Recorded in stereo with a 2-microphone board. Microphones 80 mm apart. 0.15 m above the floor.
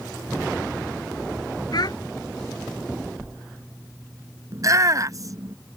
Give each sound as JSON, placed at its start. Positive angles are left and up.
{"t": 1.7, "sound": "a child speaking", "side_deg": 60}
{"t": 4.5, "sound": "a shout", "side_deg": -45}